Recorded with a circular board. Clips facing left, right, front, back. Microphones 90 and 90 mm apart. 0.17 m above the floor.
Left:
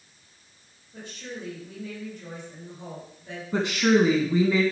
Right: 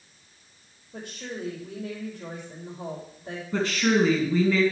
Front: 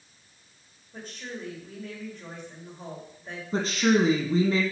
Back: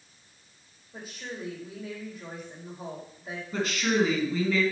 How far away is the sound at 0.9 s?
About 6 m.